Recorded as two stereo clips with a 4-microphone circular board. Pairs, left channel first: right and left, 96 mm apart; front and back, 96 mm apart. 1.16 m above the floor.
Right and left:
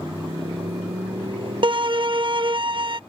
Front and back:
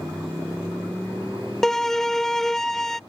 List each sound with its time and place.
0.0 s a motorcycle: 125° left; by 3.1 s 90° left
1.6 s a violin: 85° left